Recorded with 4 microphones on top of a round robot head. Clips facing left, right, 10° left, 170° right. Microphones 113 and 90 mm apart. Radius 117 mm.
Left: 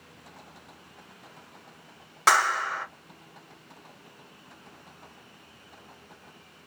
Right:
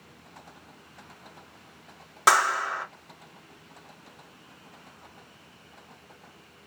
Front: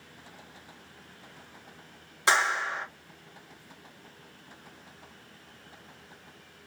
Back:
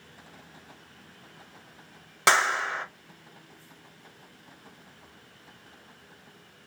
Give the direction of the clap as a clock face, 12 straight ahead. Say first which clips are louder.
Right 1 dB, back 2 dB; 6 o'clock.